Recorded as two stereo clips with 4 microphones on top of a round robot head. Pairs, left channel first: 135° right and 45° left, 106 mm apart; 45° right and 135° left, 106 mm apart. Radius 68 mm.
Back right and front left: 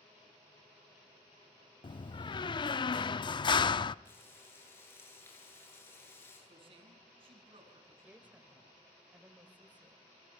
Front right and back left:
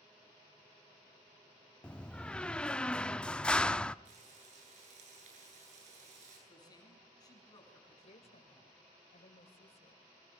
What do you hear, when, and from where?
1.8 s a door slam: 120° right, 0.5 m
4.0 s frying: 155° left, 9.5 m
6.5 s a man speaking: 10° left, 6.5 m
8.0 s a woman speaking: 30° right, 2.5 m